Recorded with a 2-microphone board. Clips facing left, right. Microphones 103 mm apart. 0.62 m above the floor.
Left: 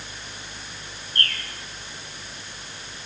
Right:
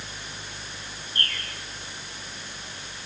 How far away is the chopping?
I don't hear chopping.